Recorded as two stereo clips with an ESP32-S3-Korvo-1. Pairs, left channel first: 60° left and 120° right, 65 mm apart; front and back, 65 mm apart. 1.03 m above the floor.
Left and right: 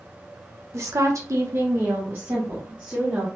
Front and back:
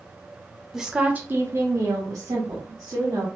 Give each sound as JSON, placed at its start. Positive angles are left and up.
{"t": 0.7, "sound": "a woman speaking", "azimuth_deg": -95, "distance_m": 0.7}